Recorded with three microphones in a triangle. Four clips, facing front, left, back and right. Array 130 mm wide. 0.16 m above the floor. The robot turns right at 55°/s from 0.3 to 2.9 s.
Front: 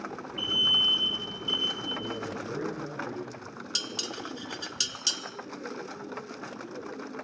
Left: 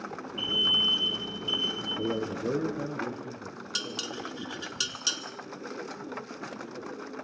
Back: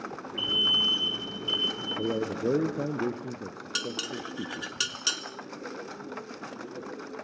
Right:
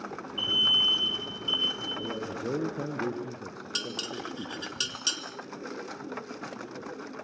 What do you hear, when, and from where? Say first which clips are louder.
0.4 s an alarm: left 1 dB, back 1 dB; 110° right, 1.6 m; by 1.9 s 25° right, 1.6 m
2.0 s a man speaking: left 5 dB, back 10 dB; 145° left, 3 m; by 4.7 s 165° right, 3 m
3.8 s dishes clattering: right 1 dB, back 4 dB; 175° left, 1.3 m